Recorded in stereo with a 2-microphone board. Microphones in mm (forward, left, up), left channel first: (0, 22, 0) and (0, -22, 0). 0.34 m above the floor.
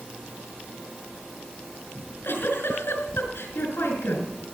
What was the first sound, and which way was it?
A giggle, 75° left (ahead or behind).